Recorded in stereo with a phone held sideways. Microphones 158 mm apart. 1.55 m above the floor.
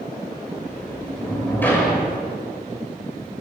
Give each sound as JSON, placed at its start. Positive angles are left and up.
{"t": 0.6, "sound": "a sliding door", "side_deg": 10, "distance_m": 7.0}